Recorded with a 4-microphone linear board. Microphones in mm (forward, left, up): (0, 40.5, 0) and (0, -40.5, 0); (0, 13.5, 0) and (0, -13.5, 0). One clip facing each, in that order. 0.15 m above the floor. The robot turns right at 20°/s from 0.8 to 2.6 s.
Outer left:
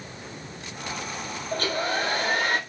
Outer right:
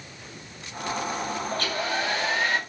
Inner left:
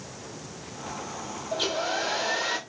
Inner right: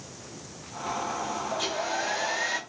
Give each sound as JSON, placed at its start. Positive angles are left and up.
{"t": 1.5, "sound": "a hair dryer", "side_deg": 35, "distance_m": 1.0}